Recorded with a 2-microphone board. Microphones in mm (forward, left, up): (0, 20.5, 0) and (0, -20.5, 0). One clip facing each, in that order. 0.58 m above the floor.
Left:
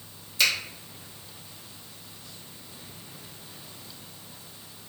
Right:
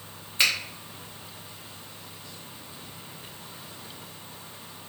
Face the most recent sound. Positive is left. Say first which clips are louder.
# even
turn(degrees=-35)  # may be behind; listen again after turning